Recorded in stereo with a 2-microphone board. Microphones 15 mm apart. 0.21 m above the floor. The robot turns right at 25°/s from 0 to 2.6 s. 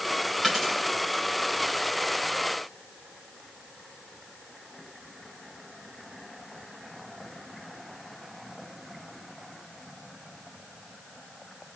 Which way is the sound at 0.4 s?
5° right (ahead or behind).